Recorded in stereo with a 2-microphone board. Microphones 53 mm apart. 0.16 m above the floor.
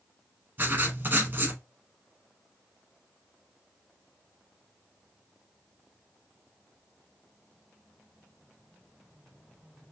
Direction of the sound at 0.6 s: 40° right (ahead or behind).